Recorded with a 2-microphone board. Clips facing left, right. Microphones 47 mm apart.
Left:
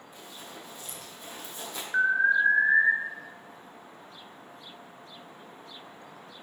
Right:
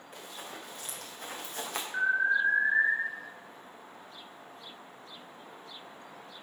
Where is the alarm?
30° left (ahead or behind), 2.5 m.